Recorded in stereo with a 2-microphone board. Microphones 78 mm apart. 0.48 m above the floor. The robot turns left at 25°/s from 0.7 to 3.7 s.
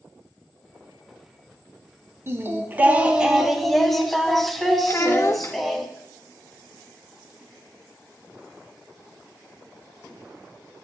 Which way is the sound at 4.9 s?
30° left (ahead or behind).